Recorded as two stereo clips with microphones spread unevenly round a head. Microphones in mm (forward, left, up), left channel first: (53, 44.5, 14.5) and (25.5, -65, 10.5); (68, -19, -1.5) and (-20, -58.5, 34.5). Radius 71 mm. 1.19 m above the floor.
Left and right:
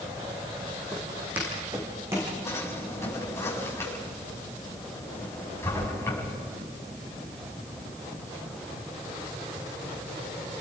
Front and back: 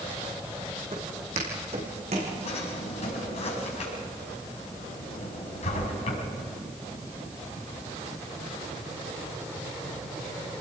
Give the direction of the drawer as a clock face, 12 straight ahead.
12 o'clock.